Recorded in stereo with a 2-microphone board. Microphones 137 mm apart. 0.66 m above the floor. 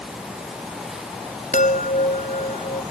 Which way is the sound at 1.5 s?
85° left.